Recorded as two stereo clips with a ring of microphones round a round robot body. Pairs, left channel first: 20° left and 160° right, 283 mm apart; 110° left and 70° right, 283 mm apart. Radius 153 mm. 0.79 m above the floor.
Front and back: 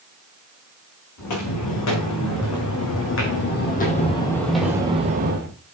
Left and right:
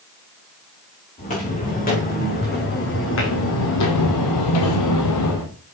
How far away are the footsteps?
About 5 m.